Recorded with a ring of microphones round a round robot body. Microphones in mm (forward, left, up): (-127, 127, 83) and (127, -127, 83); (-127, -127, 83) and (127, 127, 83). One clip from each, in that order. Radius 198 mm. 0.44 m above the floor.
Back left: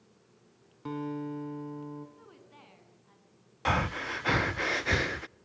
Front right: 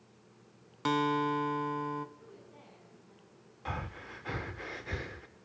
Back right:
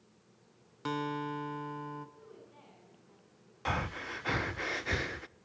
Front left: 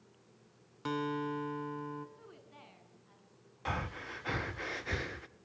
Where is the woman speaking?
95° left, 6.5 m.